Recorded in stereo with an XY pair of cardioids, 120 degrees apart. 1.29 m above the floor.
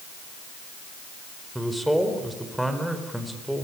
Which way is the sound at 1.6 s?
5° right.